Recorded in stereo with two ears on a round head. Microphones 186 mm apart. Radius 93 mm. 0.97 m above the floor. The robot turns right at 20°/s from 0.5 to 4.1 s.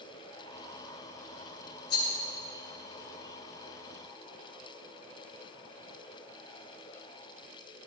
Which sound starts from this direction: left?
A rattle, at 1.9 s.